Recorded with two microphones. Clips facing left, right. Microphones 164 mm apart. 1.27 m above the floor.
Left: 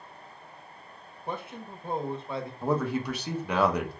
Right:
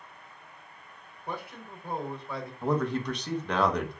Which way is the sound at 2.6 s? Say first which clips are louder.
Even; 5° left (ahead or behind).